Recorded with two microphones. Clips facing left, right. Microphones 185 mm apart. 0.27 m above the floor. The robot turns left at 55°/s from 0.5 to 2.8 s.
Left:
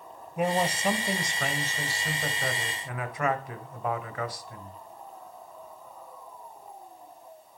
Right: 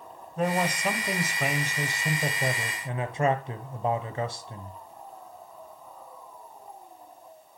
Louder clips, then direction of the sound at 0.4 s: Even; 15° left (ahead or behind).